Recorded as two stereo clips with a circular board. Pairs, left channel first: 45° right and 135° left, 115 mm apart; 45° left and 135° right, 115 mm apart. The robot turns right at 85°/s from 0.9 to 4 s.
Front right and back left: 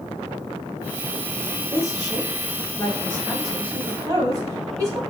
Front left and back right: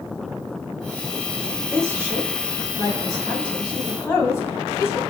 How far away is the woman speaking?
About 1.7 m.